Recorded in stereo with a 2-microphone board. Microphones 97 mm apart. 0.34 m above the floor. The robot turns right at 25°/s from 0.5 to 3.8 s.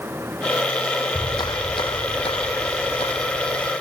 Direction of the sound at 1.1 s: 40° left.